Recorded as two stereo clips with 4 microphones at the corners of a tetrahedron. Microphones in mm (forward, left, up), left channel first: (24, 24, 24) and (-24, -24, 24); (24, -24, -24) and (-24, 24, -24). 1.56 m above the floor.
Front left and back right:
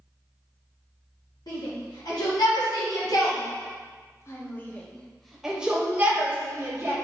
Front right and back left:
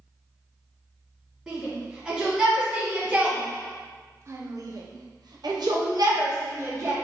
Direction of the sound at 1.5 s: 50° left.